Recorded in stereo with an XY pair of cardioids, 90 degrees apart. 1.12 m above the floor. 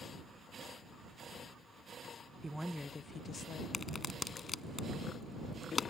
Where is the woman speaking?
20° right; by 3.6 s 65° left.